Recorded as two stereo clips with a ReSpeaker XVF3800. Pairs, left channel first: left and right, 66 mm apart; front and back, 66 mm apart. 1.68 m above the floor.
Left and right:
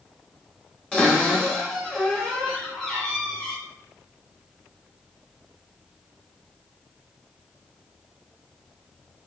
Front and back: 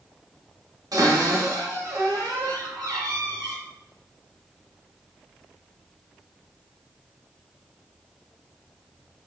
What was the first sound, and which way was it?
A cupboard door, 165° left.